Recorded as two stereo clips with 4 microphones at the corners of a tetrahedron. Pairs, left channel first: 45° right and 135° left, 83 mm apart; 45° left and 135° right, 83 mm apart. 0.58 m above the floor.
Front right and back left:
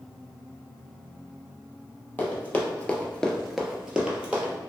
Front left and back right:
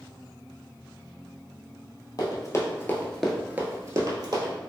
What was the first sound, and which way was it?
Running footsteps, 20° left.